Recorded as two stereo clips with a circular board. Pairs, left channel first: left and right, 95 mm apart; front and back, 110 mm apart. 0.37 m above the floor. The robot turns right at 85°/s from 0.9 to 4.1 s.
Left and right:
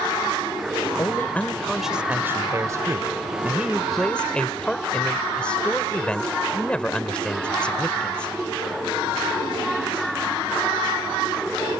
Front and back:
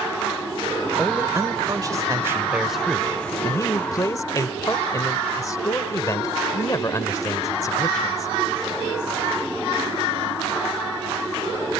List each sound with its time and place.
1.0 s a man speaking: 115° left; by 8.3 s 20° left